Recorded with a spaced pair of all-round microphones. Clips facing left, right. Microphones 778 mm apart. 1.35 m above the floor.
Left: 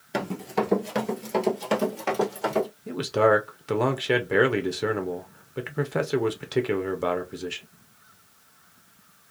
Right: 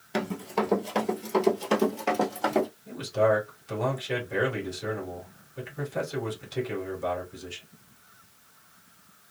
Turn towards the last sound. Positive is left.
turn(degrees=70)  # may be behind; listen again after turning